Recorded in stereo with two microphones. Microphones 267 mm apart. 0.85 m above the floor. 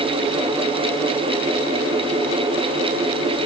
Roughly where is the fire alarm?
No fire alarm in this recording.